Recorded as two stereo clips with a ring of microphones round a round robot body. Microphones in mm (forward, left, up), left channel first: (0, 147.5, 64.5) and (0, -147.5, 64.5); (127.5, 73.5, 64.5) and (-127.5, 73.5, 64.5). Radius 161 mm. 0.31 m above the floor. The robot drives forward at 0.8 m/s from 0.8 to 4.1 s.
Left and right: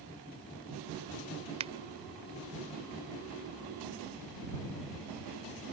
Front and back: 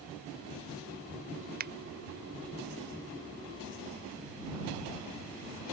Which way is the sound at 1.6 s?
150° right.